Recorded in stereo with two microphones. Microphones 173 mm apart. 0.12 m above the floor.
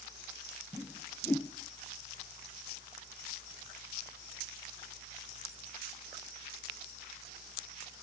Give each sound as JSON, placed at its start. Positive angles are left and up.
{"t": 0.7, "sound": "a whoosh", "side_deg": 10, "distance_m": 0.5}